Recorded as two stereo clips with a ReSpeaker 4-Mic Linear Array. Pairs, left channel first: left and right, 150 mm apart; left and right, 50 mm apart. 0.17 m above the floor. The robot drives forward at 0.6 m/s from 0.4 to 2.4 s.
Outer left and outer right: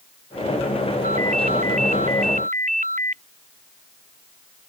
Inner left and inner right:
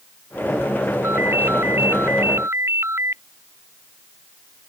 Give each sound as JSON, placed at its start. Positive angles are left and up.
{"t": 1.0, "sound": "a ringtone", "side_deg": -50}